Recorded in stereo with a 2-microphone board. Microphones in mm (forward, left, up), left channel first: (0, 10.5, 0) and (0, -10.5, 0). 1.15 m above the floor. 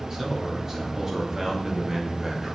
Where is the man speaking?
20° right (ahead or behind), 3 m; by 2.5 s 25° right (ahead or behind), 1.8 m.